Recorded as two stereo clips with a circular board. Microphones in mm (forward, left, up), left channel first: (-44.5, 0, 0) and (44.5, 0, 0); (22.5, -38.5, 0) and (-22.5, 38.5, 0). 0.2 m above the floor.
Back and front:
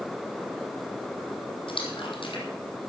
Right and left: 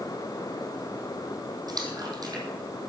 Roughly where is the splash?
Behind.